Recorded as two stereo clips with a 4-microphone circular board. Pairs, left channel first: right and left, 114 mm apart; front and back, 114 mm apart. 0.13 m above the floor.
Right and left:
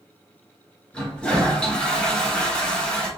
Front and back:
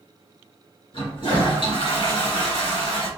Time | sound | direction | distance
0.9 | a toilet flushing | 10° right | 2.0 m